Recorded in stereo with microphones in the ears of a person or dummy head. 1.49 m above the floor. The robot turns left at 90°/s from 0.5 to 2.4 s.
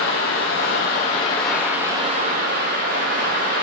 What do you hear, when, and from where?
0.0 s running water: 110° left, 1.6 m; by 3.6 s 60° right, 1.6 m